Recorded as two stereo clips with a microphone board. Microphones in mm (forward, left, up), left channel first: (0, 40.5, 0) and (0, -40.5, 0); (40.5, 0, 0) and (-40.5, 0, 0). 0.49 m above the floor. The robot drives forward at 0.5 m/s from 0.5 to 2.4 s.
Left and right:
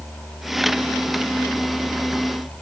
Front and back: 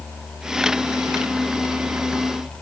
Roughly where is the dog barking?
I don't hear a dog barking.